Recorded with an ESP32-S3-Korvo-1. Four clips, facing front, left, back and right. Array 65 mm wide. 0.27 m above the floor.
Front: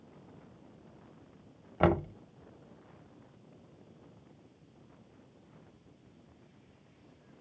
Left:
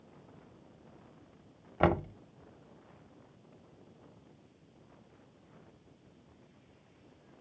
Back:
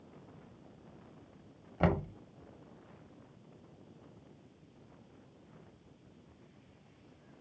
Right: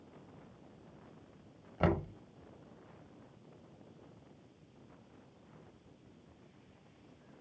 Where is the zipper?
I don't hear a zipper.